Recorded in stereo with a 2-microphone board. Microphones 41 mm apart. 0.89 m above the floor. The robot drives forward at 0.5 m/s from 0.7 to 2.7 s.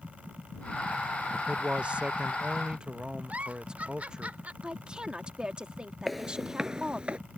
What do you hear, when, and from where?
1.3 s a man speaking: 30° right (ahead or behind); by 4.3 s 20° right (ahead or behind)
3.3 s a giggle: 35° right (ahead or behind)
4.6 s a woman speaking: 20° right (ahead or behind)
6.1 s footsteps: 5° left (ahead or behind); by 7.2 s 30° right (ahead or behind)